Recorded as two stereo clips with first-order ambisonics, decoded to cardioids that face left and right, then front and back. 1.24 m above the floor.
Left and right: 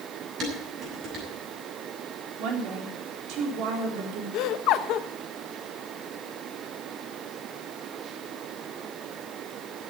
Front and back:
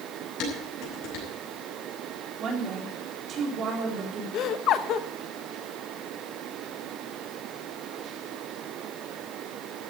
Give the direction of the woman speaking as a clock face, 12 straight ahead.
4 o'clock.